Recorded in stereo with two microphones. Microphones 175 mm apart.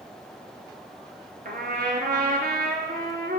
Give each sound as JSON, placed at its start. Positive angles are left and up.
{"t": 1.4, "sound": "a trumpet", "side_deg": -65, "distance_m": 0.8}